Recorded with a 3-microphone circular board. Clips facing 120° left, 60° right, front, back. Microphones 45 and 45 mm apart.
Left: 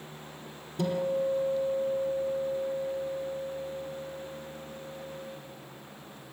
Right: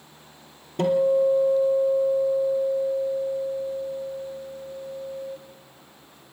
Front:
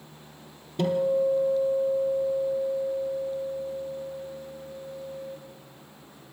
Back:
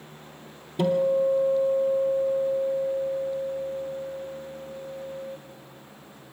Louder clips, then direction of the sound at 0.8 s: Right 9 dB, back 2 dB; 95° right.